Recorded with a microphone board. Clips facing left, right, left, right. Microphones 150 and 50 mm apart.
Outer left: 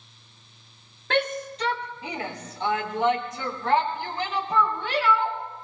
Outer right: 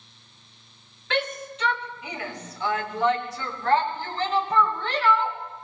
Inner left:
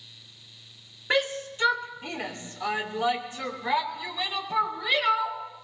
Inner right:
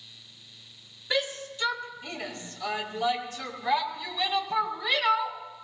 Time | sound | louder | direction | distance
1.1 | a shout | outer left 2 dB, inner left 4 dB | 50° left (ahead or behind) | 2.5 m